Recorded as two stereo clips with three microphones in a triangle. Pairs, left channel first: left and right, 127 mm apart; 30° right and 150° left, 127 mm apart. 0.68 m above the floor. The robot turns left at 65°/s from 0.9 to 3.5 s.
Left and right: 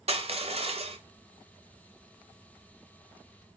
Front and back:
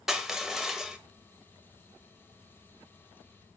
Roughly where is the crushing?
Behind right.